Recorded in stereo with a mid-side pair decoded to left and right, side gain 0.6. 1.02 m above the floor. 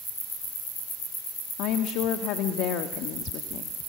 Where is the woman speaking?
65° left, 1.5 m.